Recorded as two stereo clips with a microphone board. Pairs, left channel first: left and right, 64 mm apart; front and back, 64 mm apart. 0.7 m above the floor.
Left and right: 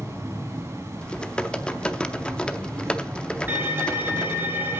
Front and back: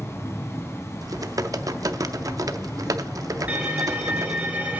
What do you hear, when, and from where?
0.0 s an insect: 45° right, 2.5 m
1.0 s typing on a keyboard: 165° left, 0.6 m
3.5 s a violin: 125° right, 1.2 m